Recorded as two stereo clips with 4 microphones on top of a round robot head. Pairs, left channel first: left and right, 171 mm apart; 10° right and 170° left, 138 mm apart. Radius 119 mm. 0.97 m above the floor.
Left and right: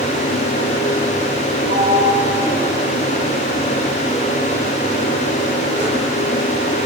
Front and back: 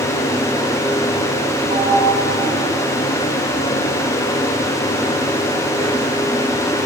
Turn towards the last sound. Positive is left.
turn(degrees=-135)